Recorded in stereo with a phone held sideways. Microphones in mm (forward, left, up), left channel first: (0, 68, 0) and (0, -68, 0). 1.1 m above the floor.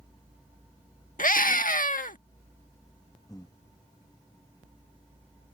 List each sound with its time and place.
1.2 s a scream: 90° left
3.3 s breathing: 25° left (ahead or behind)